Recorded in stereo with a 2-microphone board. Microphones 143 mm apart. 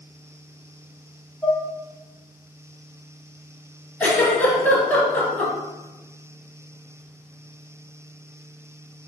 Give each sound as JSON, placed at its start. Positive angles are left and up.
{"t": 1.4, "sound": "dishes clattering", "side_deg": 5, "distance_m": 0.9}
{"t": 4.0, "sound": "a giggle", "side_deg": 15, "distance_m": 1.2}